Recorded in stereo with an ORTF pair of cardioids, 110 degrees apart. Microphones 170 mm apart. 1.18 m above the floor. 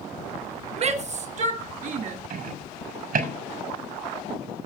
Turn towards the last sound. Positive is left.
turn(degrees=-60)